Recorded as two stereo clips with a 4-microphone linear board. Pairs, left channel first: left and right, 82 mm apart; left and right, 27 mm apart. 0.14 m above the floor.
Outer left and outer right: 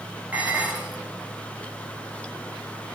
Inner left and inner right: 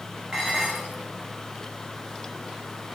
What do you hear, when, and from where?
0.3 s dishes clattering: 20° right (ahead or behind), 9 m